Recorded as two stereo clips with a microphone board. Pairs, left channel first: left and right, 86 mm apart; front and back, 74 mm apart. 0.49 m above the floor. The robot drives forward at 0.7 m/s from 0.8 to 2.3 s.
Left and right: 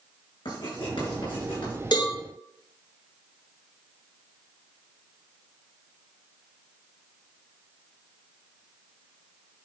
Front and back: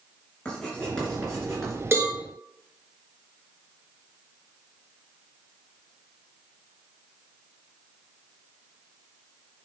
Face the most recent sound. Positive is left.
turn(degrees=130)